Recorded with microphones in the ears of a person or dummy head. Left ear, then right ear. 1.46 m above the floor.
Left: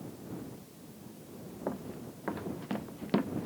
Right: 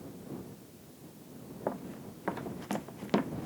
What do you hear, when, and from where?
1.7 s running footsteps: 30° right (ahead or behind)